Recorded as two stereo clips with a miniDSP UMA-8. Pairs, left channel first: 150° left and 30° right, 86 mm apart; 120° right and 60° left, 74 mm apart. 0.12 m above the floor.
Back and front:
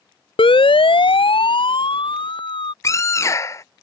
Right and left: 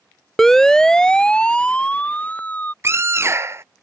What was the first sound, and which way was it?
A siren, 155° left.